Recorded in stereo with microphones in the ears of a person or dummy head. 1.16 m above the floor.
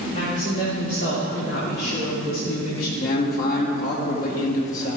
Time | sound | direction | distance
0.1 | a woman speaking | 45° left (ahead or behind) | 3.5 m
3.0 | a man speaking | 55° left (ahead or behind) | 2 m